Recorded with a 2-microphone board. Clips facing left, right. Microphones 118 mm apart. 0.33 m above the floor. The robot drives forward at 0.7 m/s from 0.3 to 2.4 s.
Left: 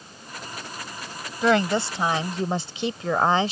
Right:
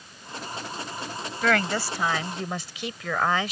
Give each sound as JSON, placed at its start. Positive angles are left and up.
{"t": 1.4, "sound": "a woman speaking", "side_deg": 20}